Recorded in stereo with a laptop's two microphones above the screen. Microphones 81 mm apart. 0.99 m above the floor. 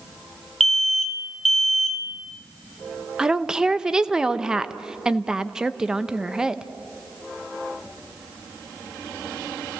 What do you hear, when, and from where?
0.6 s an alarm: 5° left (ahead or behind), 0.9 m
3.2 s a woman speaking: 10° right (ahead or behind), 0.6 m